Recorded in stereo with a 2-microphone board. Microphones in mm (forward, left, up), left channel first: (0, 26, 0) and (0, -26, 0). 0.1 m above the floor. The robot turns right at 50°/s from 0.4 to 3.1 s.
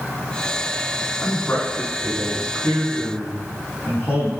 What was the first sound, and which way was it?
A man speaking, 35° left.